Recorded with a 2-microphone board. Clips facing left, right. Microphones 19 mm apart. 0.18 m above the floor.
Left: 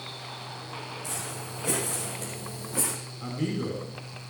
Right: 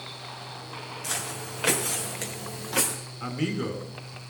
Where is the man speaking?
40° right (ahead or behind), 2 m.